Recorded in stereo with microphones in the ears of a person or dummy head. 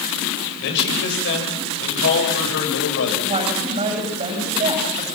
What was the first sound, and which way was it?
A man speaking, 60° left (ahead or behind).